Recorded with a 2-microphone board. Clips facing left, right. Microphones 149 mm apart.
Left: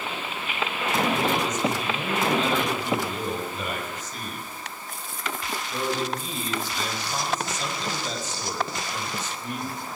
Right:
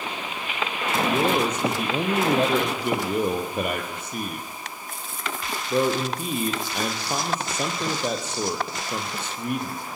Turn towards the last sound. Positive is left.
turn(degrees=-60)  # may be behind; listen again after turning